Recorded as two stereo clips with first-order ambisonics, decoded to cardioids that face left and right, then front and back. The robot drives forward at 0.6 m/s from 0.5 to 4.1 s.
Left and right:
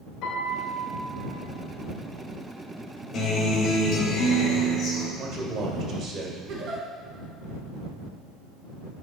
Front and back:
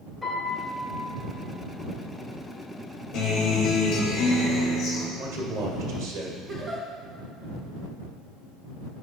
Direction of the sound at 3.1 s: 50° left.